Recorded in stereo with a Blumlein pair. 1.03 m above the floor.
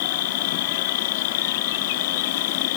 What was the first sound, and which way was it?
An insect, 55° left.